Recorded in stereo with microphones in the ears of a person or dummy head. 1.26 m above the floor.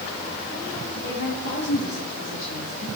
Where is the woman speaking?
65° left (ahead or behind), 3 m.